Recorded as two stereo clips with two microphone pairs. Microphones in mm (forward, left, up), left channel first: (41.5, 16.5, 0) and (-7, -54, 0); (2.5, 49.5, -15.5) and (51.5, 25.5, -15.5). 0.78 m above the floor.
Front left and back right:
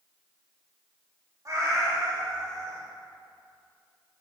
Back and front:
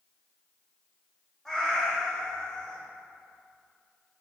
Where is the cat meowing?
130° right, 0.6 m.